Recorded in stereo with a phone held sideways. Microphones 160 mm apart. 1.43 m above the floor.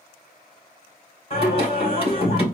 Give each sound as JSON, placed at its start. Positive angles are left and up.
{"t": 1.3, "sound": "singing", "side_deg": 40, "distance_m": 2.0}